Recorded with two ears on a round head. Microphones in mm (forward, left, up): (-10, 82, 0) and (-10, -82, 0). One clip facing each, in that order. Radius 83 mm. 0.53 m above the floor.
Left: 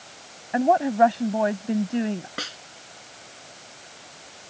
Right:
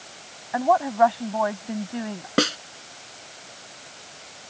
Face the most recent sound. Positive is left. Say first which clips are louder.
# right 15 dB
turn(degrees=-70)  # may be behind; listen again after turning